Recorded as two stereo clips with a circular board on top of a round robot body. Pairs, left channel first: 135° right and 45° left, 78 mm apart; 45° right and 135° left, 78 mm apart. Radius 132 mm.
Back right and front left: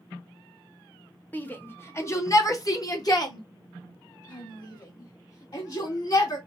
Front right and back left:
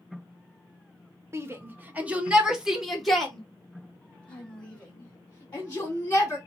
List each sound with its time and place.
1.3 s a shout: 170° left, 1.4 m; by 6.4 s 105° right, 3 m